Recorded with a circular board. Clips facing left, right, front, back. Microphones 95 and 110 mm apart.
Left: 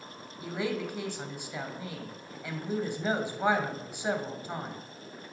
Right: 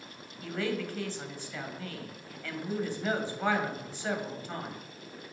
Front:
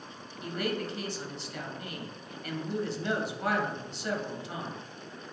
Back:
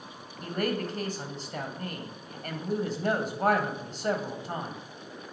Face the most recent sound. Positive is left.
turn(degrees=160)